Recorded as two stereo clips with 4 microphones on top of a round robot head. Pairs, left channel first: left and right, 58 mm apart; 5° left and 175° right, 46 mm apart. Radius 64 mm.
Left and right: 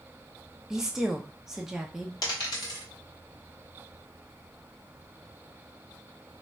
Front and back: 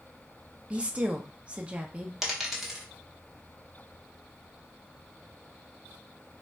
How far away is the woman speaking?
About 0.5 m.